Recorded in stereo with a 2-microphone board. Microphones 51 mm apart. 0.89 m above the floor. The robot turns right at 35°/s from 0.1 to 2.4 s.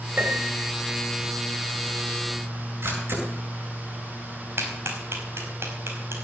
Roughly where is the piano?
Right.